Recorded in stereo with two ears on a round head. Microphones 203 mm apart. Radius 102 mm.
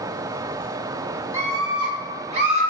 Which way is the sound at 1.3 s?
15° right (ahead or behind).